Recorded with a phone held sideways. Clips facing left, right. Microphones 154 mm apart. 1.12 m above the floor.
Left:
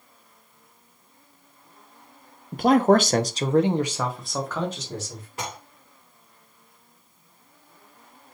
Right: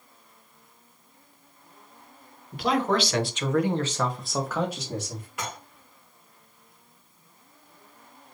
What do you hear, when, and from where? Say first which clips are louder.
2.5 s a man speaking: left 7 dB; 45° left (ahead or behind), 0.9 m; by 5.3 s 15° right (ahead or behind), 1.5 m
5.4 s dishes clattering: left 2 dB; 30° left (ahead or behind), 2.5 m